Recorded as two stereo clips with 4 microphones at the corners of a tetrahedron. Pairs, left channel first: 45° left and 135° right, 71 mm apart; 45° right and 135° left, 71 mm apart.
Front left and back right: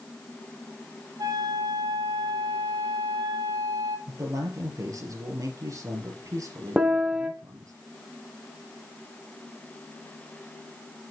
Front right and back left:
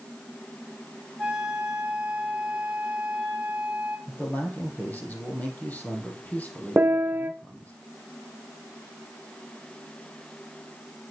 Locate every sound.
1.2 s a flute: 150° right, 2.0 m
4.1 s a man speaking: 110° right, 3.5 m
6.8 s a piano: 165° left, 1.1 m